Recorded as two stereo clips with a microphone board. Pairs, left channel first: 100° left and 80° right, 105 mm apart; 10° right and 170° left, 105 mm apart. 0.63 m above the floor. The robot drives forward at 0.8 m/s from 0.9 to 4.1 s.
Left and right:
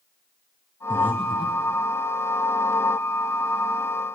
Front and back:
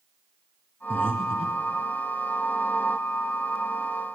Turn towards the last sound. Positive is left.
turn(degrees=155)